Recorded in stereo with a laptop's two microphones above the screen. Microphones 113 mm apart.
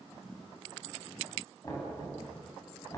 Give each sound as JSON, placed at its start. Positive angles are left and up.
{"t": 1.6, "sound": "knocking", "side_deg": 30, "distance_m": 7.0}